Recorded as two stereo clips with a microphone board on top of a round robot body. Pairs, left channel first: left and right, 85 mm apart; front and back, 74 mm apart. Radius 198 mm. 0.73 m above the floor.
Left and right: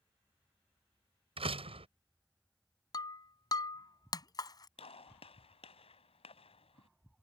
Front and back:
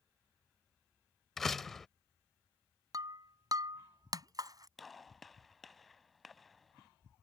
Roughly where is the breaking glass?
Behind left.